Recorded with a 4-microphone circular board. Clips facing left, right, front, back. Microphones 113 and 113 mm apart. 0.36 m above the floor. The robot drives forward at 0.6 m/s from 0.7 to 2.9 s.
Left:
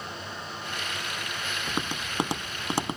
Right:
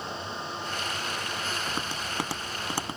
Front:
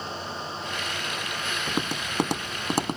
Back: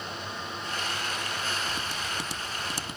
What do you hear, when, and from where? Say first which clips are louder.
1.7 s tapping: left 1 dB, front 4 dB; 20° left